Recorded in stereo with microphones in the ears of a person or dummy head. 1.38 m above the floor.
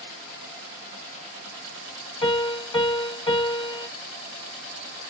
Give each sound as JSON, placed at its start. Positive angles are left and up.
{"t": 2.2, "sound": "a piano", "side_deg": 40, "distance_m": 1.8}